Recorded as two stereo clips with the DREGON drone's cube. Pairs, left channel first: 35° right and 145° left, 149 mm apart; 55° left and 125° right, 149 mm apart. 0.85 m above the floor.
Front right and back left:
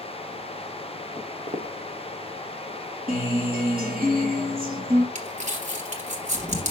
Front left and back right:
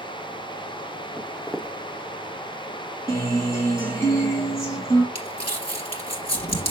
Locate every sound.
1.2 s footsteps: 145° left, 1.3 m
3.1 s a guitar: 125° left, 3.5 m
5.2 s crumpling: 105° left, 2.5 m